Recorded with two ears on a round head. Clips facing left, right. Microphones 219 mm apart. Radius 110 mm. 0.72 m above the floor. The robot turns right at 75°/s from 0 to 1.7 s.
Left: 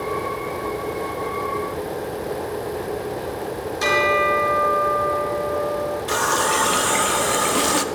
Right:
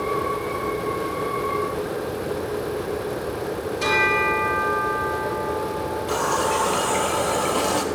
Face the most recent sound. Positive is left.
turn(degrees=25)  # may be behind; listen again after turning